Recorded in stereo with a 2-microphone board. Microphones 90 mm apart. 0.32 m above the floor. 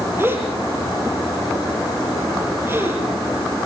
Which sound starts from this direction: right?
A gasp, at 0.2 s.